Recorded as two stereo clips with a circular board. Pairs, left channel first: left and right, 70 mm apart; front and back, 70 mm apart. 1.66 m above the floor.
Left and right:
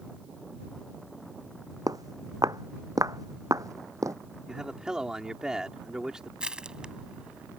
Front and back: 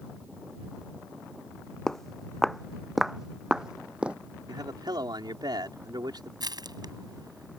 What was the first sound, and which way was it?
Footsteps, 80° right.